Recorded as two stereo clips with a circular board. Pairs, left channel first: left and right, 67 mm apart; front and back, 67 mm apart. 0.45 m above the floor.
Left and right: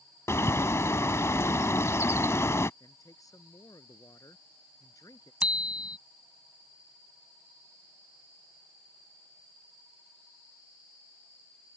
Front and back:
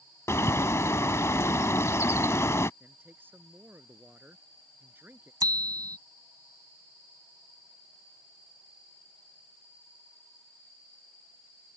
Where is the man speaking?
120° left.